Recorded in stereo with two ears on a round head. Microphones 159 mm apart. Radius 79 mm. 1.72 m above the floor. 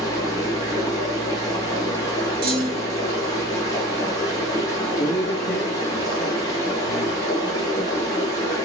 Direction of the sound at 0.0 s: 20° left (ahead or behind).